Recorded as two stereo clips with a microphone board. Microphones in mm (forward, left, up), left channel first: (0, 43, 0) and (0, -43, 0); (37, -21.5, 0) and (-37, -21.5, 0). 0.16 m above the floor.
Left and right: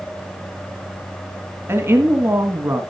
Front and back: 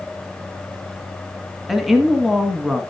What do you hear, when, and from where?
1.7 s a woman speaking: 95° right, 1.3 m